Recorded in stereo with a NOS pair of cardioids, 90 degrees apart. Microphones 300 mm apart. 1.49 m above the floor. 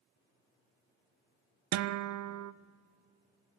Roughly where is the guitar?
Ahead right.